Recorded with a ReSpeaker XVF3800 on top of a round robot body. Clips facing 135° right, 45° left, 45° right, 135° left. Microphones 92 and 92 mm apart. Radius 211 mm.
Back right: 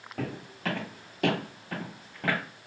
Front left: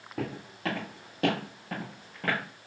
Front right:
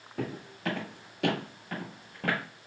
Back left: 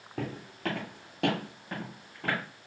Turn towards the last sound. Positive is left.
turn(degrees=-55)